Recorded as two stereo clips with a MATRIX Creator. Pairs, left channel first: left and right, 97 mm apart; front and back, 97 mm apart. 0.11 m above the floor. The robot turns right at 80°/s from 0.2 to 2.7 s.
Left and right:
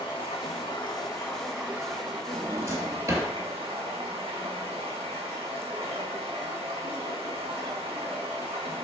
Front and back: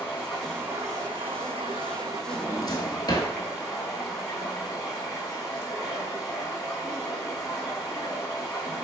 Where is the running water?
70° left, 1.6 m; by 8.8 s 90° right, 1.6 m.